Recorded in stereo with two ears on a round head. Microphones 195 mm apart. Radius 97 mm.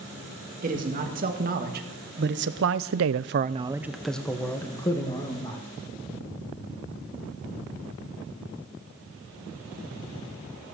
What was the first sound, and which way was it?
A man speaking, 40° right (ahead or behind).